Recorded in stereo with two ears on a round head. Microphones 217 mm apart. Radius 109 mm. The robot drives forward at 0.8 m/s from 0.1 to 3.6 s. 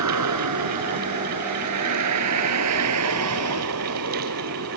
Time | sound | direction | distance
0.0 | a vehicle | 80° right | ?